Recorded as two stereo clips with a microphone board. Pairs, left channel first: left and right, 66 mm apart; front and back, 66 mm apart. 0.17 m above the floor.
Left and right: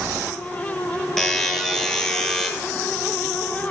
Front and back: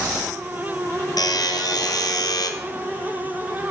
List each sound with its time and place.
1.2 s a buzzer: 10° left, 1.1 m